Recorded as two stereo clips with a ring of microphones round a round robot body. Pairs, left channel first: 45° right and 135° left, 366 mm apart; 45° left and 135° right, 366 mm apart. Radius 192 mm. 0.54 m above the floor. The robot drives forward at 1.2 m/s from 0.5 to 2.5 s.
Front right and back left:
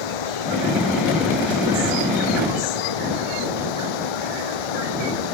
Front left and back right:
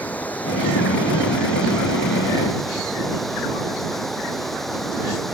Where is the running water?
40° right; by 5.3 s 45° right.